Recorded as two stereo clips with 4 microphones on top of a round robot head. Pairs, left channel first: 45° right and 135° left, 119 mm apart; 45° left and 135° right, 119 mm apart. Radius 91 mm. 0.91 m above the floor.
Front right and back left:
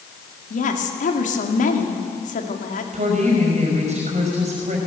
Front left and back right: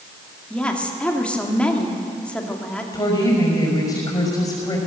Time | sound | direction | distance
0.5 | a woman speaking | 40° right | 2.5 m
2.9 | a woman speaking | 105° left | 5.5 m